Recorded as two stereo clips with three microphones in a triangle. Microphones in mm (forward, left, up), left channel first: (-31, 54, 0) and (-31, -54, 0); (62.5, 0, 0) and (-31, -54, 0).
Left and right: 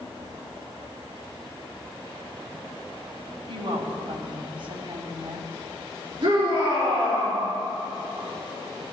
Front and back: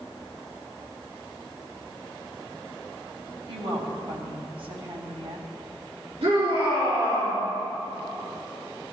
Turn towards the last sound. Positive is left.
turn(degrees=-125)